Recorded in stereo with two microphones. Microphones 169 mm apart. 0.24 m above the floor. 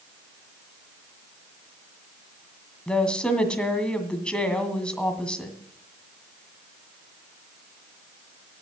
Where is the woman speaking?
5° left (ahead or behind), 1.9 m.